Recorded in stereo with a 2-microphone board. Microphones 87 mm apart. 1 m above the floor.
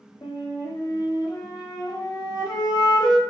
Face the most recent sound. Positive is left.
turn(degrees=55)  # may be behind; listen again after turning